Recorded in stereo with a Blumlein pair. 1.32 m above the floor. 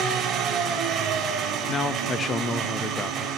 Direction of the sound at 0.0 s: 30° right.